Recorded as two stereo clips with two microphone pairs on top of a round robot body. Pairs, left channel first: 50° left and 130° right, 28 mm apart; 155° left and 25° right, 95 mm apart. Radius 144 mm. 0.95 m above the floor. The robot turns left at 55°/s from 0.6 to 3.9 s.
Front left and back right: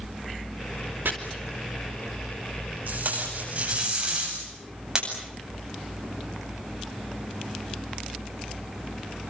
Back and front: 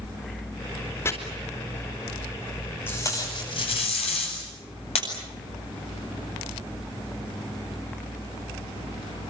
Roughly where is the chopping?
Behind right.